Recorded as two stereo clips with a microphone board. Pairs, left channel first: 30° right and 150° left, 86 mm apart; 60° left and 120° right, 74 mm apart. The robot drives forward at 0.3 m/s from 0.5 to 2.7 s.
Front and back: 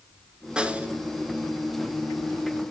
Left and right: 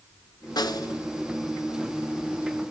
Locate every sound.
0.6 s a snare drum: 70° left, 0.7 m; by 1.0 s 85° left, 0.6 m